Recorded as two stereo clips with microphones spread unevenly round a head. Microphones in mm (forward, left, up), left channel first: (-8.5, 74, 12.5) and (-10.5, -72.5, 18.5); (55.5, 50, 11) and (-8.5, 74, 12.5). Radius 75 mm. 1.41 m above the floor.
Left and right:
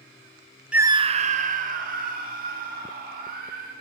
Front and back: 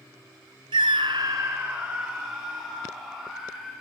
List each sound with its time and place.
0.7 s a scream: 175° right, 0.6 m; by 3.7 s 110° right, 4.5 m